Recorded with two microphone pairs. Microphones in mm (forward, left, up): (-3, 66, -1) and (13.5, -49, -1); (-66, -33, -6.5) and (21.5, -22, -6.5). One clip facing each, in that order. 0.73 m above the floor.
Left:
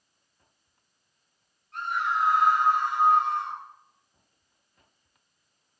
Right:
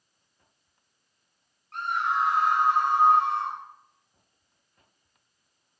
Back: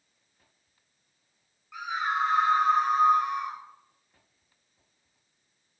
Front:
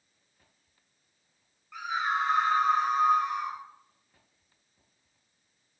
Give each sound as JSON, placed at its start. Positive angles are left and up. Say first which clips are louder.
{"t": 1.7, "sound": "a scream", "louder": "right 1 dB, even", "azimuth_deg": -85, "distance_m": 6.5}